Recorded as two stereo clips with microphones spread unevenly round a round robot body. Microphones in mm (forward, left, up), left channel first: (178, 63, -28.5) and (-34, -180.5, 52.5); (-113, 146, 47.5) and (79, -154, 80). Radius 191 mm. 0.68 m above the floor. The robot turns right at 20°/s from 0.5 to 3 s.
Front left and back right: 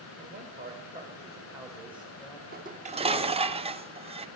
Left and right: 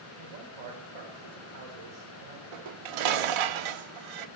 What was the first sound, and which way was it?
A man speaking, 70° right.